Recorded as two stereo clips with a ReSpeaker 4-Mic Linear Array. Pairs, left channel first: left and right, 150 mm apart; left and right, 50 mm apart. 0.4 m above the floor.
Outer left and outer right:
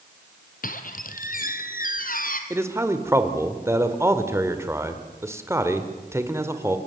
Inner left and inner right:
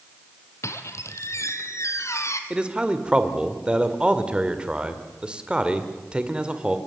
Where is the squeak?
70° left (ahead or behind), 1.5 m.